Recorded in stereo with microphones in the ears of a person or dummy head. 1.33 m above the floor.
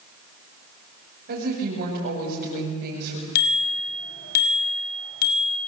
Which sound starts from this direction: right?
A woman speaking, at 1.3 s.